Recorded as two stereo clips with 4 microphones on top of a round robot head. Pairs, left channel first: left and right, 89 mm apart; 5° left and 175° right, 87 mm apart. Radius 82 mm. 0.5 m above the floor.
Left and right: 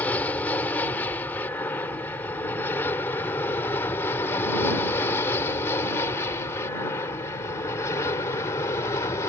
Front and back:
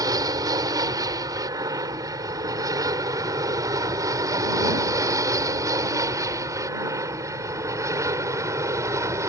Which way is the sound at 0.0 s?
160° left.